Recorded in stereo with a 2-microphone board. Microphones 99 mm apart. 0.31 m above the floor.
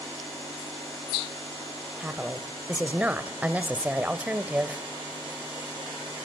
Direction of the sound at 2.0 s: 15° right (ahead or behind).